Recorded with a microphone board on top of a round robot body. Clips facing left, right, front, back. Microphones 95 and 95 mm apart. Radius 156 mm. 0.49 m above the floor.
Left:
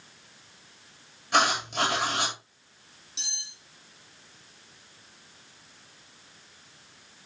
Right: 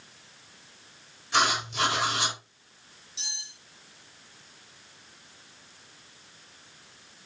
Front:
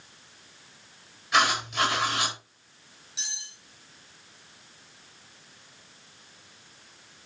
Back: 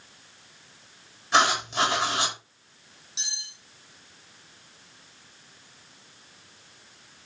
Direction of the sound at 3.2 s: 110° left.